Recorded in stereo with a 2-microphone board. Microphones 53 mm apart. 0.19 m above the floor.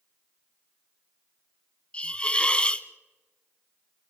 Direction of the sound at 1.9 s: 20° left (ahead or behind).